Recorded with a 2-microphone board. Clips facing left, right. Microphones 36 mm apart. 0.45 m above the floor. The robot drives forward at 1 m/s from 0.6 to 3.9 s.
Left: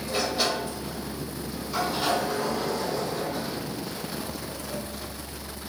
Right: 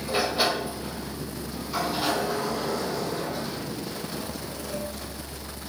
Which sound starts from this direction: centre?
A sliding door, at 0.1 s.